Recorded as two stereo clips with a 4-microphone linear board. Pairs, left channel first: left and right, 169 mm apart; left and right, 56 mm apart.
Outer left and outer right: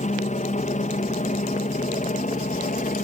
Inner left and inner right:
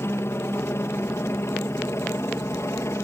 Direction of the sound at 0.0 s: 45° left (ahead or behind).